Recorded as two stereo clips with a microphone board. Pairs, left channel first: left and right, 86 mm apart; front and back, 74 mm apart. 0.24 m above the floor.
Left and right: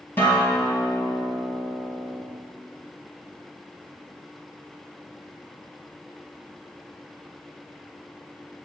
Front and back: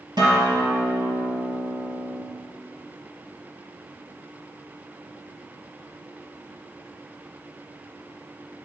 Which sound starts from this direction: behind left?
A guitar, at 0.2 s.